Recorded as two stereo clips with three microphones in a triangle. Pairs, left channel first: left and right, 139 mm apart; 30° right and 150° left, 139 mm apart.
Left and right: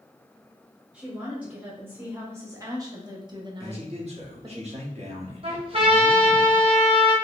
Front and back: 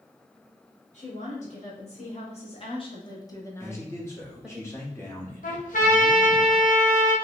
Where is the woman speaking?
10° right, 2 m; by 4.6 s 130° right, 1.3 m.